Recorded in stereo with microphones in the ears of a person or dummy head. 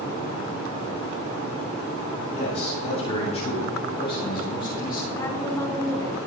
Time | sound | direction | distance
2.3 | a man speaking | 45° left (ahead or behind) | 8.5 m
5.2 | a woman speaking | 20° left (ahead or behind) | 2 m